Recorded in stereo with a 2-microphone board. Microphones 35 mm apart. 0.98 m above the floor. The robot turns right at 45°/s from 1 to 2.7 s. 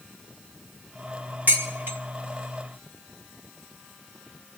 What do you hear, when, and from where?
1.5 s dishes clattering: 60° right (ahead or behind), 1.8 m; by 2.0 s 80° right, 1.8 m